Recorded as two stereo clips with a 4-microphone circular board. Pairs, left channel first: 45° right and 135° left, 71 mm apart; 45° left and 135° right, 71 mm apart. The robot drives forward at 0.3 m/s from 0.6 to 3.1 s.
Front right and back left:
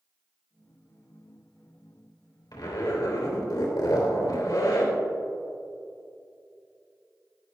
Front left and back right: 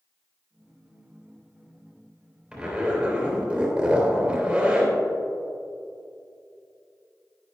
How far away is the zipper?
About 3.5 m.